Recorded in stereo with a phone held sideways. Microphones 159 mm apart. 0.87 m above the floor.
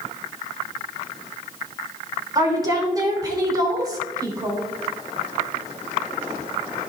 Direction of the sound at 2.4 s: 25° right (ahead or behind).